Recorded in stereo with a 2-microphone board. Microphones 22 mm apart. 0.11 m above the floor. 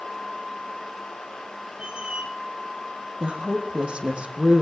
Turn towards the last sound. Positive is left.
turn(degrees=-55)  # may be behind; listen again after turning